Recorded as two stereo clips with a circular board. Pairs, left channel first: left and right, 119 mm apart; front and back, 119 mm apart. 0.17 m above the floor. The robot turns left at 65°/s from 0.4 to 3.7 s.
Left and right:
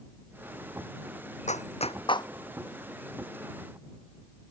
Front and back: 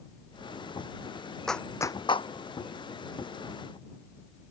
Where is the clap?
85° left; by 2.3 s 35° left.